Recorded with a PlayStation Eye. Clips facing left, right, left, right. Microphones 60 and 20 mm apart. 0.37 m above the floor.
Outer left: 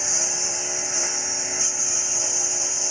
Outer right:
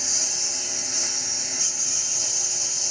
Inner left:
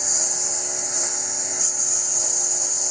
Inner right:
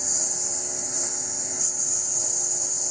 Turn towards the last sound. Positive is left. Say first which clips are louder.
# outer left 5 dB, inner left 4 dB
turn(degrees=20)  # may be behind; listen again after turning